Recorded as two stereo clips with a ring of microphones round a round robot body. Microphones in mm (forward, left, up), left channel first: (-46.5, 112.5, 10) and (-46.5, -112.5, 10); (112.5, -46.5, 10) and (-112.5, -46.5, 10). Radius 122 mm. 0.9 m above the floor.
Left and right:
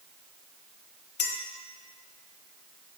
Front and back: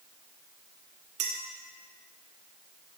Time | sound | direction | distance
1.2 | a clink | 130° left | 1.4 m